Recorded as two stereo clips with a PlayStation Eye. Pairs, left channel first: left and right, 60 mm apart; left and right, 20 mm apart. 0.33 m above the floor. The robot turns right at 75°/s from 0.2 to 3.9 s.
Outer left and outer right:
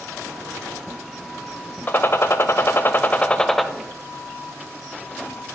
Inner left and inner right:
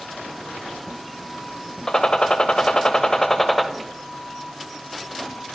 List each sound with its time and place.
1.9 s a gunshot: 50° left, 0.7 m; by 3.7 s straight behind, 0.7 m